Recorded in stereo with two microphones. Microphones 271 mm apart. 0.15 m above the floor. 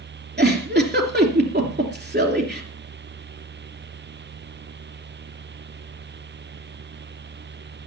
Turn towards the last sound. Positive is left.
turn(degrees=-40)  # may be behind; listen again after turning